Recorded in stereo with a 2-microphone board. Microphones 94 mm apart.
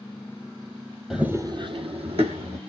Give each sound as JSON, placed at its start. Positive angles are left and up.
{"t": 1.1, "sound": "running footsteps", "side_deg": -5, "distance_m": 0.6}